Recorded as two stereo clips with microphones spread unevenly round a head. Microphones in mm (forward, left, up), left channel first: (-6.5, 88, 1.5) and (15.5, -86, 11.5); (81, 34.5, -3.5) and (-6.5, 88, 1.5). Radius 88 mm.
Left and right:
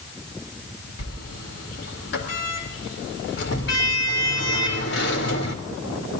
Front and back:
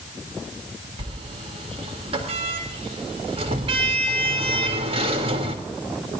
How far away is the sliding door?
About 3.5 m.